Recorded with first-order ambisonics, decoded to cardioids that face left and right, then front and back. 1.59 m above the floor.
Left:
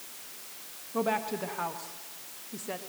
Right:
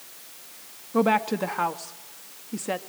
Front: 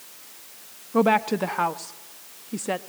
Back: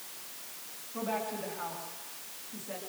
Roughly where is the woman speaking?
Ahead right.